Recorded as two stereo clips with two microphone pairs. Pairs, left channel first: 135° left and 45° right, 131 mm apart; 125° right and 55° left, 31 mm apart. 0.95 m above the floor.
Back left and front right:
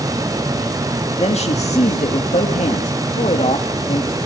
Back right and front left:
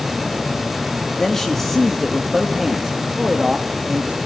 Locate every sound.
1.2 s a man speaking: 165° left, 1.7 m; by 4.2 s 110° left, 2 m